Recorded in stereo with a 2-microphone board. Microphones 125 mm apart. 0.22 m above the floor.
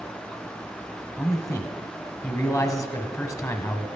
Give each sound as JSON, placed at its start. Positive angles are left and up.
{"t": 1.2, "sound": "a man speaking", "side_deg": 25, "distance_m": 1.3}